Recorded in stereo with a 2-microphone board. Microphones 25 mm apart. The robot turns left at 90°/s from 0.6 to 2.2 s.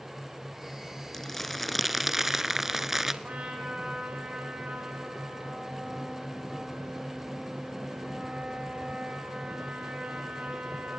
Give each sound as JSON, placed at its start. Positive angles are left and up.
{"t": 1.1, "sound": "crumpling", "side_deg": 20, "distance_m": 1.0}
{"t": 3.2, "sound": "a trumpet", "side_deg": -60, "distance_m": 8.0}